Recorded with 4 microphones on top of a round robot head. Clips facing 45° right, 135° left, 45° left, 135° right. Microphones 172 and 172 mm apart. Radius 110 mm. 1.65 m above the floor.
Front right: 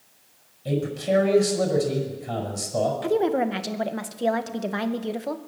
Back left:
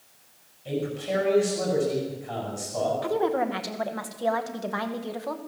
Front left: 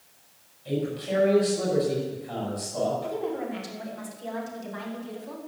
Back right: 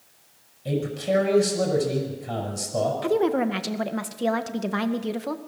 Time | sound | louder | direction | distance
0.7 | a man speaking | front right 4 dB, back right 3 dB | 95° right | 7 m
3.0 | a woman speaking | front right 4 dB, back right 8 dB | 115° right | 2 m